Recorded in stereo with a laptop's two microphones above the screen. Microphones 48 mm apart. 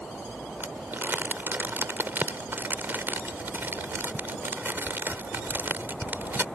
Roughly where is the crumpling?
Right.